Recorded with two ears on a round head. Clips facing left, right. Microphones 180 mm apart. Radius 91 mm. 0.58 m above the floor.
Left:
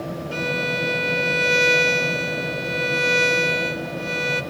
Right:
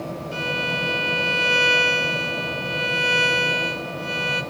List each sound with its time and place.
0.3 s a violin: 70° left (ahead or behind), 2.5 m